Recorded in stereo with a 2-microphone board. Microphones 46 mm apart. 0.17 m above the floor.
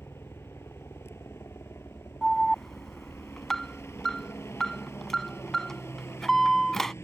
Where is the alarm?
5° left (ahead or behind).